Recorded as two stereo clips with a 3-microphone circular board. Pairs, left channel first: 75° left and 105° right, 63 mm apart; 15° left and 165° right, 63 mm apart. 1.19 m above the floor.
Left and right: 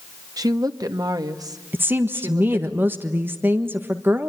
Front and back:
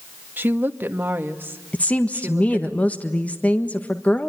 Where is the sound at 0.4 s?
110° right, 1.5 m.